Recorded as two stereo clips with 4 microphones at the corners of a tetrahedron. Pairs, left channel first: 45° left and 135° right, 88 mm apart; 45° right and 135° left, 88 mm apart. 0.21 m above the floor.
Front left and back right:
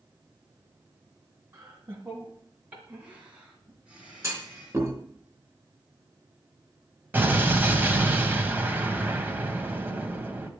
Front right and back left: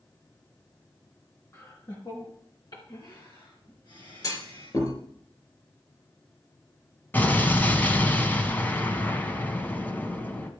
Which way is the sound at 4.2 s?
85° right.